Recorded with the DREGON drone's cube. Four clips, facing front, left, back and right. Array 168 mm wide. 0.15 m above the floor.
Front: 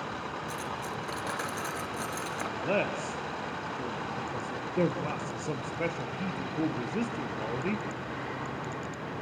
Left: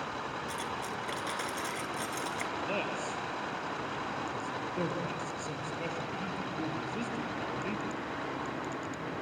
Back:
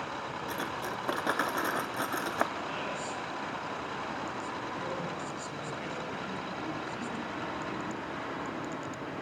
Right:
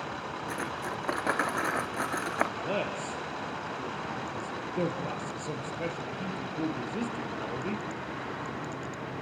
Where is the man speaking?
20° right, 3.5 m.